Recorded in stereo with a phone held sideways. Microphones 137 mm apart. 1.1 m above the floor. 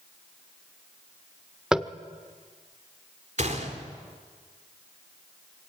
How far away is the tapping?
About 0.9 m.